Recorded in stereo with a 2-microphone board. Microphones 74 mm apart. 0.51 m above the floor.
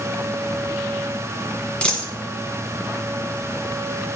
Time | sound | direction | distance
1.8 | a dropped coin | 15° left (ahead or behind) | 1.5 m